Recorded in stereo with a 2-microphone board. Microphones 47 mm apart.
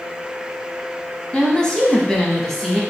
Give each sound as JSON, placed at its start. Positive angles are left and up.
{"t": 1.3, "sound": "a woman speaking", "side_deg": 20, "distance_m": 1.0}